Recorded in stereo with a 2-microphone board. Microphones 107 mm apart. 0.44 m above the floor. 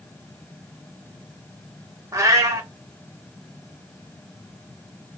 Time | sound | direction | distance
2.1 | a cat meowing | 30° right (ahead or behind) | 0.9 m